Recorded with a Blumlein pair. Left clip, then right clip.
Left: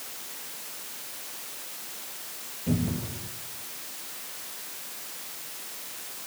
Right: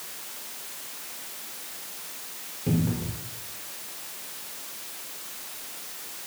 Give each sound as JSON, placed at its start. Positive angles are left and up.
{"t": 2.7, "sound": "a cupboard door", "azimuth_deg": -25, "distance_m": 4.5}